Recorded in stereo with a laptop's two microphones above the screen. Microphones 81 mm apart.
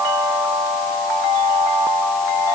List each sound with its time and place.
Only background noise.